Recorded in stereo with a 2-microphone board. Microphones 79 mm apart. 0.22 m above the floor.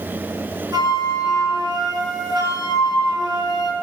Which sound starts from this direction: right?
A flute, at 0.7 s.